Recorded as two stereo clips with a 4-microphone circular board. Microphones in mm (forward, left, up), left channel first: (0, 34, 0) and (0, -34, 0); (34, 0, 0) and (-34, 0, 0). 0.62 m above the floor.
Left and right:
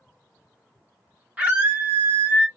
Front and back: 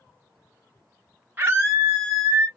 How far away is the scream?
About 1.0 m.